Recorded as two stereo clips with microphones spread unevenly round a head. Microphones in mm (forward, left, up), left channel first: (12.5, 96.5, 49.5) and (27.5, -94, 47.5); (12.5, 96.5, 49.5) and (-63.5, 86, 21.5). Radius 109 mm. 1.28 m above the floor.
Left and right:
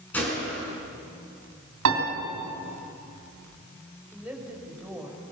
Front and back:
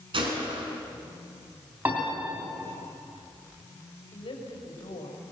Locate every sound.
0.1 s a gunshot: 175° left, 5 m
1.9 s a piano: 95° right, 3 m
4.1 s a woman speaking: 5° right, 5 m